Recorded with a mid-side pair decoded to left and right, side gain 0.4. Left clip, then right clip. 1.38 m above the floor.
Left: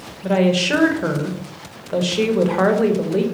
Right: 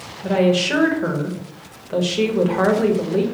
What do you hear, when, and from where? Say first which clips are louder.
0.2 s a woman speaking: even; 15° left, 0.8 m